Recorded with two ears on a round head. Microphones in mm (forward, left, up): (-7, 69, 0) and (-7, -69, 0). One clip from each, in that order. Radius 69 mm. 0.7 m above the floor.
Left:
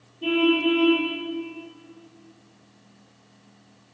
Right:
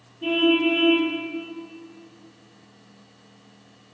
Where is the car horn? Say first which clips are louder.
Right 1 dB; 5° left (ahead or behind), 8.5 m.